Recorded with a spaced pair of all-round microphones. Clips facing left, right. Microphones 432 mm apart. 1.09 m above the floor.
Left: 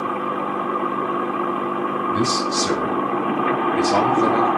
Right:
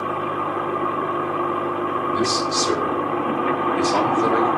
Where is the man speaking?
70° left (ahead or behind), 2.5 m; by 4.5 s 55° left (ahead or behind), 3.5 m.